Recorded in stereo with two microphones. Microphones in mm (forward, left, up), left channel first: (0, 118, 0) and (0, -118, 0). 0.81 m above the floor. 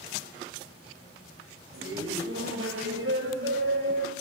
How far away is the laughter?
About 4.5 m.